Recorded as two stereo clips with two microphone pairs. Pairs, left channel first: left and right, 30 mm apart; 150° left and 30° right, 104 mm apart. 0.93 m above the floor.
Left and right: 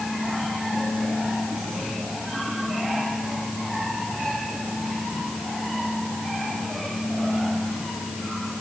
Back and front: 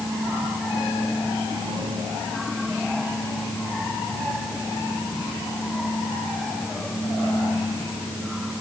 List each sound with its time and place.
Only background noise.